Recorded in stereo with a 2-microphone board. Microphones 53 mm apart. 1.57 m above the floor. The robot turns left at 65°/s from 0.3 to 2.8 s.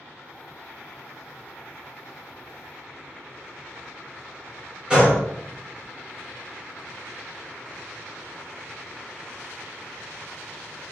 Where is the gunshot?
15° right (ahead or behind), 1.1 m.